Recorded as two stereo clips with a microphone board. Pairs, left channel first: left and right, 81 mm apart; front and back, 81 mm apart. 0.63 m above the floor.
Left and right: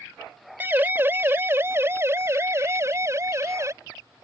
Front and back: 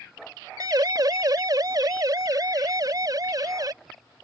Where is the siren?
150° right; by 3.7 s 140° right.